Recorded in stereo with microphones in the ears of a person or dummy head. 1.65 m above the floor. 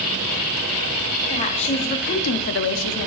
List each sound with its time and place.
1.3 s a woman speaking: 30° left (ahead or behind), 1.1 m; by 3.1 s 50° left (ahead or behind), 0.6 m